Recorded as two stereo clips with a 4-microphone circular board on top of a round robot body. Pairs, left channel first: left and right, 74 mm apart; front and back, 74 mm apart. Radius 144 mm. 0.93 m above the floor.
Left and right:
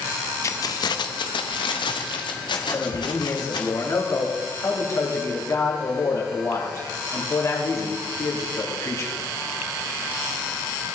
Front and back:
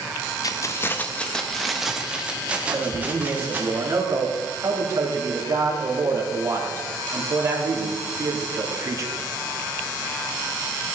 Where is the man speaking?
135° left, 3 m.